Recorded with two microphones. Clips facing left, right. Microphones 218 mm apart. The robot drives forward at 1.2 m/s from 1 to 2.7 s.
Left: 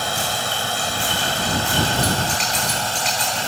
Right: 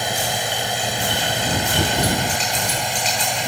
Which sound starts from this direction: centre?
A drone, at 0.0 s.